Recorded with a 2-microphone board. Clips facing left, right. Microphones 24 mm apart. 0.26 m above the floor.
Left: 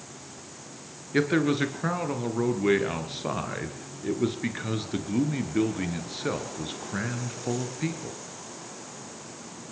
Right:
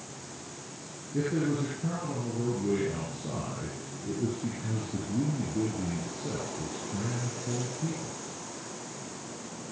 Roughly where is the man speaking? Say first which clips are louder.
Left 6 dB; left.